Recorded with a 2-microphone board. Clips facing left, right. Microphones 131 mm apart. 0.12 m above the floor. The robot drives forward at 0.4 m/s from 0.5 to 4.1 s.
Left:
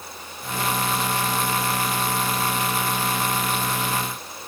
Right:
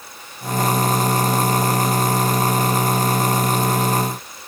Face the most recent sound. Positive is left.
No sound to turn to.